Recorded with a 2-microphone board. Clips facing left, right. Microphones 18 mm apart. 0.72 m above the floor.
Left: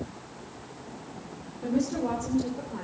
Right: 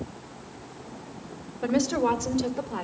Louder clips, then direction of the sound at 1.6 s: Right 4 dB; 60° right (ahead or behind).